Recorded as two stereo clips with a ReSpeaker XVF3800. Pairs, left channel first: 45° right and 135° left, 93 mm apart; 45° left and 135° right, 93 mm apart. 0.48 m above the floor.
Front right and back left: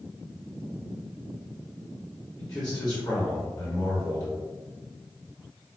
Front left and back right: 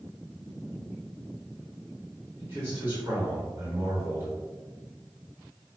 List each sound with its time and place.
2.4 s a man speaking: 75° right, 1.8 m